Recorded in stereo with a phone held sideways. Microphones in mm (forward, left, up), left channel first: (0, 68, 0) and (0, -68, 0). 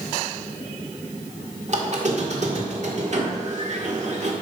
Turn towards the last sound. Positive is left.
turn(degrees=-55)  # may be behind; listen again after turning